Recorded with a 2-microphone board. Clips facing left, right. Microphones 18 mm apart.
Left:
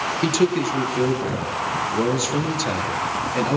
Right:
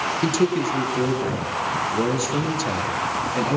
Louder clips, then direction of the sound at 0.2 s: Left 2 dB; 15° left (ahead or behind).